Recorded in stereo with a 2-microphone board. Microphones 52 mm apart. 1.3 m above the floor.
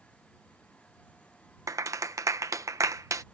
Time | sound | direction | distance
1.7 | a clap | 80° right | ?